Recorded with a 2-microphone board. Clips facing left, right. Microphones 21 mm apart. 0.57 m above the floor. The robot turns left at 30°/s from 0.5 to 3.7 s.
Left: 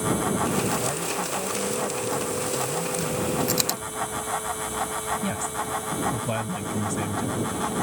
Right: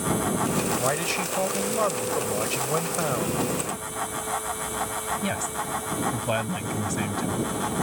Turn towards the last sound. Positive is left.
turn(degrees=-15)  # may be behind; listen again after turning